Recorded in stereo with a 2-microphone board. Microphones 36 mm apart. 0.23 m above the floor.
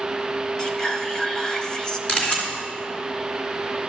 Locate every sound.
0.6 s whispering: 20° left (ahead or behind), 1.0 m
2.1 s a camera shutter: 30° left (ahead or behind), 2.5 m